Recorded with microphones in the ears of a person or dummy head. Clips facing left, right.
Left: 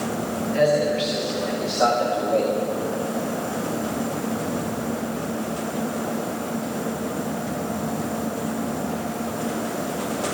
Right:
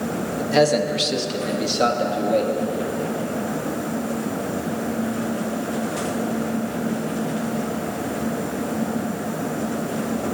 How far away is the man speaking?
About 2 m.